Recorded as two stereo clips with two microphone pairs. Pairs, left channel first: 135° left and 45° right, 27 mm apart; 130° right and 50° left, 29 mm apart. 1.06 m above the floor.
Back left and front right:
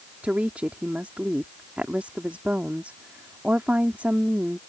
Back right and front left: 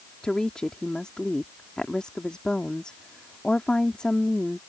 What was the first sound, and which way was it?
A woman speaking, 70° right.